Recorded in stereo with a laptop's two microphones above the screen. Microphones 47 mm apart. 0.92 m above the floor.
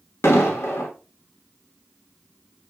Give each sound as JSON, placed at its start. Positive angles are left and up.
{"t": 0.2, "sound": "an explosion", "side_deg": 70, "distance_m": 1.3}